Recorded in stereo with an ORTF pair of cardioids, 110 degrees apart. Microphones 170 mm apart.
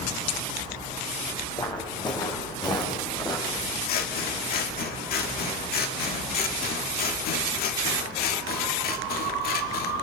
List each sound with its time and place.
1.6 s footsteps: 25° left, 4.5 m
3.9 s scissors: 70° left, 2 m